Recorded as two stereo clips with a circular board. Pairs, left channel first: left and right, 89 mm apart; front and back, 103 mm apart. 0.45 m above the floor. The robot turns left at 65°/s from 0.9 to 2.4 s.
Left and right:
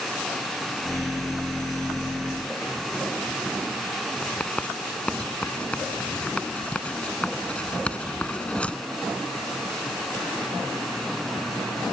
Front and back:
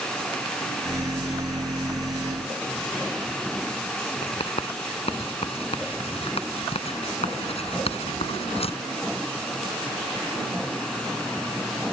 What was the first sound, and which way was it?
Writing, 15° left.